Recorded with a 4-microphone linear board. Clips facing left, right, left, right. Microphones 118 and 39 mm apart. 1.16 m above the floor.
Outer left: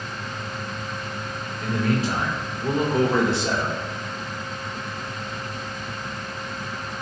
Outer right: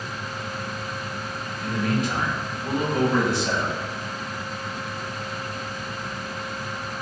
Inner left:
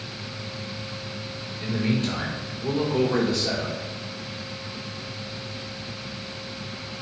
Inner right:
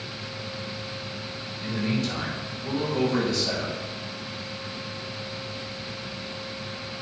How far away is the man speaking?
About 3 m.